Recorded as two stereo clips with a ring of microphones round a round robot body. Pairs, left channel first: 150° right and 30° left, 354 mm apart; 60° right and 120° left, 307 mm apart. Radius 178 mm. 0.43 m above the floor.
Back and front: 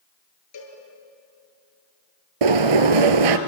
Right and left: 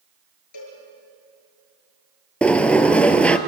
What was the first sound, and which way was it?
A cowbell, 105° right.